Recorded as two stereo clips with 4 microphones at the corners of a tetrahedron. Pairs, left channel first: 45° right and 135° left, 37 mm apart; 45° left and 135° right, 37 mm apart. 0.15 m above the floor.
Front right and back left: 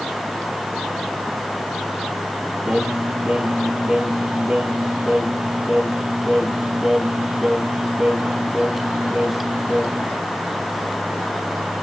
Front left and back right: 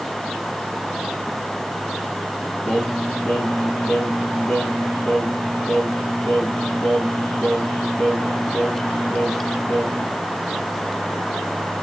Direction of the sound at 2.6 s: 95° left.